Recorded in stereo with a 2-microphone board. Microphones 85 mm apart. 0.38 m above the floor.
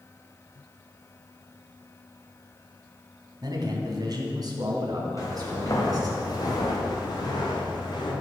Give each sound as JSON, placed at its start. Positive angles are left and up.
{"t": 3.4, "sound": "a man speaking", "side_deg": -55, "distance_m": 3.0}
{"t": 5.2, "sound": "footsteps", "side_deg": 40, "distance_m": 4.0}